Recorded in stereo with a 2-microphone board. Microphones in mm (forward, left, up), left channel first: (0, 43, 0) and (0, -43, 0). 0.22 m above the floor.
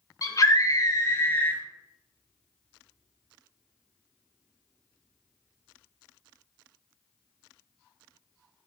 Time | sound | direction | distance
0.2 | a scream | 45° left (ahead or behind) | 2.5 m